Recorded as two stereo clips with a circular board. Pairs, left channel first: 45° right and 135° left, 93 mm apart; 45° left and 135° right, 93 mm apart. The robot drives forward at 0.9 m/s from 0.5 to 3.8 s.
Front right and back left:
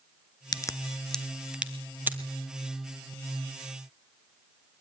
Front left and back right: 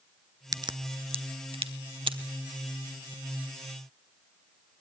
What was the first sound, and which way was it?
A crack, 90° right.